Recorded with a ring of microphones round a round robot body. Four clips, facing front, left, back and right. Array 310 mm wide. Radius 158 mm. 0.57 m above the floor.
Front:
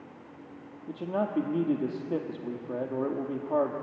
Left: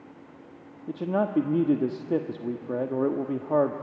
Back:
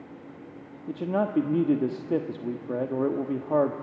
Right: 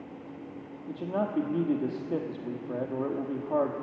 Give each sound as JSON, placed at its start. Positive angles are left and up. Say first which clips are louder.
{"t": 0.9, "sound": "a man speaking", "louder": "left 4 dB, back 4 dB", "azimuth_deg": 130, "distance_m": 1.0}